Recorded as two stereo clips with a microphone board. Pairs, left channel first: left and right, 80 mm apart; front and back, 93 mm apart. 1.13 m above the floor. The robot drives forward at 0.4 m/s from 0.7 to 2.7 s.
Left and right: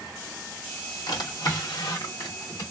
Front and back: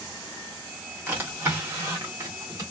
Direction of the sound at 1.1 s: 110° left.